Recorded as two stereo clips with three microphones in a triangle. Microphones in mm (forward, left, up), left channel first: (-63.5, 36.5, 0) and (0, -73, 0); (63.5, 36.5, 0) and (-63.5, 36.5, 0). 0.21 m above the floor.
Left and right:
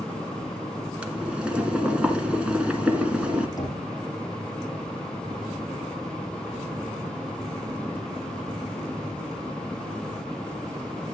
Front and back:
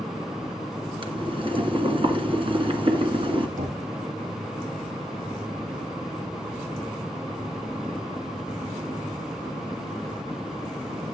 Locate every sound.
1.0 s boiling: 140° right, 1.9 m
3.6 s knocking: 175° right, 6 m